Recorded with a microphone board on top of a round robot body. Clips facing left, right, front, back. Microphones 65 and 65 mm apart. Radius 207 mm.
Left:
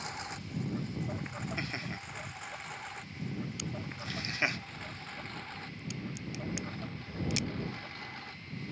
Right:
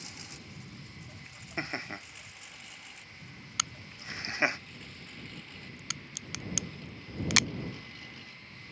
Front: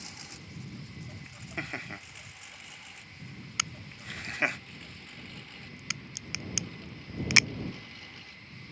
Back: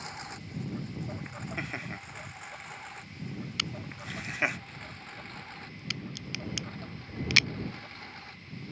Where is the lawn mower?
135° left; by 8.7 s 130° left.